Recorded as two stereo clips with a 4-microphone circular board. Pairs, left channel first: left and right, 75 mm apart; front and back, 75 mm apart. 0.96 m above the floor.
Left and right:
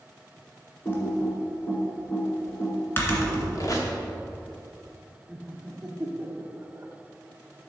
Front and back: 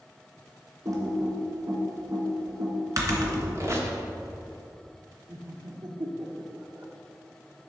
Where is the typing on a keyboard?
145° left, 1.9 m.